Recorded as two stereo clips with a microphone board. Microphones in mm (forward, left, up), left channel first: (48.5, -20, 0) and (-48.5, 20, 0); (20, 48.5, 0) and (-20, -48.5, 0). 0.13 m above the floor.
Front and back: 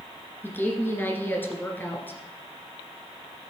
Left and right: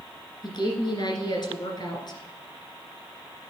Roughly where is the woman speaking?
Ahead left.